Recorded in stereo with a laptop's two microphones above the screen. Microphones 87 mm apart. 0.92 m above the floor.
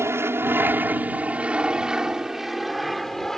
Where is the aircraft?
30° right (ahead or behind); by 3.4 s 5° left (ahead or behind).